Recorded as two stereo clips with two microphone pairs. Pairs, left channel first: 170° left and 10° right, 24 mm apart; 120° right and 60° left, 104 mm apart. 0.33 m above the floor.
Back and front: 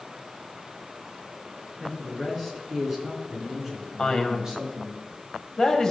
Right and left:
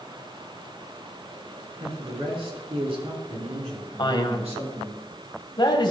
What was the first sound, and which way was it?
A man speaking, 90° left.